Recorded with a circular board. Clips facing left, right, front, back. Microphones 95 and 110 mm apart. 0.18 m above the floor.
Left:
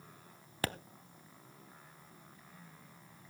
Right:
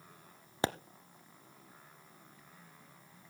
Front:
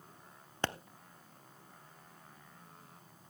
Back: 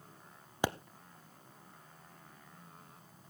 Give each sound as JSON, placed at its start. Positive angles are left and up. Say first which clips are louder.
{"t": 0.6, "sound": "a pop", "louder": "right 4 dB, back 3 dB", "azimuth_deg": -115, "distance_m": 0.6}